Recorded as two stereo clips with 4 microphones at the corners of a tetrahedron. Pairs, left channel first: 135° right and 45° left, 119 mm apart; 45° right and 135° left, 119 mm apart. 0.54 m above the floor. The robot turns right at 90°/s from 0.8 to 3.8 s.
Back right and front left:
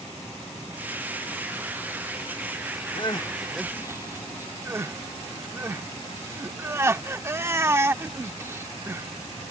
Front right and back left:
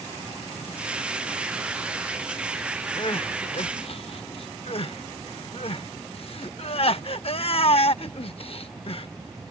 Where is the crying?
100° right; by 9.1 s 20° right.